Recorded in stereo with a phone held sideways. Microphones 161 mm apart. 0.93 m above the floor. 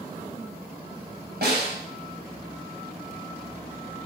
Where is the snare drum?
80° right, 5 m.